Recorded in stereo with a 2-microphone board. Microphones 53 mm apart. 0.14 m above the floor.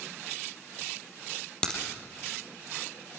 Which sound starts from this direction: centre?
A crack, at 1.6 s.